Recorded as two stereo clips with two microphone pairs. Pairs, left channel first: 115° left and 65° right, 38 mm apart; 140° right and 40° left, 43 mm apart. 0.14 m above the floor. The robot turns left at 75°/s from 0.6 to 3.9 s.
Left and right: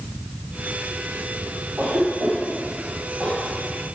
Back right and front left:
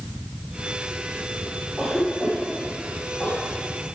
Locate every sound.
1.8 s a cough: 40° right, 4 m; by 3.4 s 165° right, 4 m